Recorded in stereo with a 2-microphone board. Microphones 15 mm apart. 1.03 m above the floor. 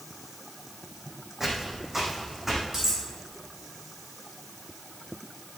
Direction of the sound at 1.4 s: 20° right (ahead or behind).